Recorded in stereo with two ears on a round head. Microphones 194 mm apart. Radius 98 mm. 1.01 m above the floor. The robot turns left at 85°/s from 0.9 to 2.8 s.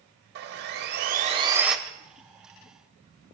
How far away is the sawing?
About 1.1 m.